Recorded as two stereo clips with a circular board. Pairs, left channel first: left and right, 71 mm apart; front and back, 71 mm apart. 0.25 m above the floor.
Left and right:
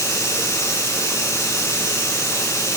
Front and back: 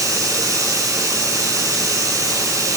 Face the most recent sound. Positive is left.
turn(degrees=140)